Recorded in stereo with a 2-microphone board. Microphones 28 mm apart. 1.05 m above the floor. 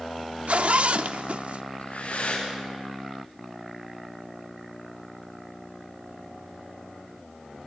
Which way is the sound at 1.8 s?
70° left (ahead or behind).